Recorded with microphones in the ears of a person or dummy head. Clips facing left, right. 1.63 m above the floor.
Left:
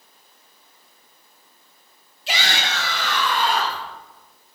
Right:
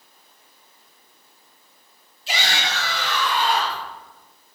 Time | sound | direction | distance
2.3 | a shout | 55° left (ahead or behind) | 2 m